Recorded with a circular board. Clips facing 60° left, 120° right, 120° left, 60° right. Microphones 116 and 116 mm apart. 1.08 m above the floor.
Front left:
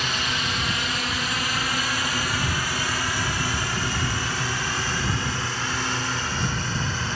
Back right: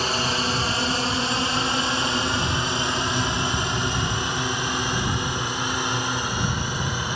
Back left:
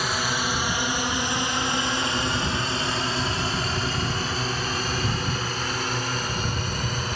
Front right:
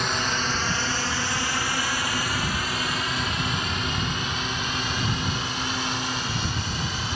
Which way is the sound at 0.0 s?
155° right.